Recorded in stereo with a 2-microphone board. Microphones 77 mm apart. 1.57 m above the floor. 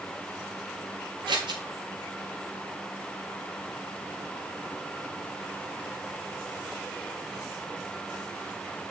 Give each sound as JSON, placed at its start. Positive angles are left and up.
{"t": 1.3, "sound": "scissors", "side_deg": -80, "distance_m": 3.5}